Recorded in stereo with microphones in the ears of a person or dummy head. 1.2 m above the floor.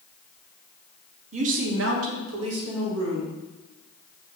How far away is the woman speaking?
About 1.1 m.